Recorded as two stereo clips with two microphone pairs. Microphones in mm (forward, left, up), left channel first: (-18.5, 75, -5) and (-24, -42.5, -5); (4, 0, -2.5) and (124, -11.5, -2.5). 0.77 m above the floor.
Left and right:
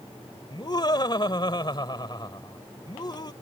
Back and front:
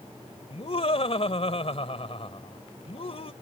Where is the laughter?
140° left.